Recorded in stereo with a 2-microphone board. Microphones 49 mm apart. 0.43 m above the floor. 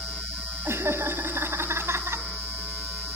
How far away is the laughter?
About 3 m.